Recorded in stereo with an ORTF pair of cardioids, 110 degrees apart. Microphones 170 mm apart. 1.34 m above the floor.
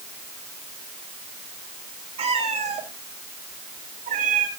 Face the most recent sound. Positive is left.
turn(degrees=-50)